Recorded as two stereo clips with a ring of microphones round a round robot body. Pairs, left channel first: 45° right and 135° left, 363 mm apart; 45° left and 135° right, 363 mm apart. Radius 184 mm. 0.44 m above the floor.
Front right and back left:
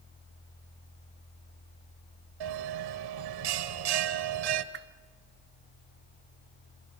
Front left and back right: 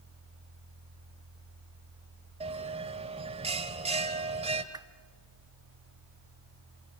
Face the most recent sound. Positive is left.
turn(degrees=155)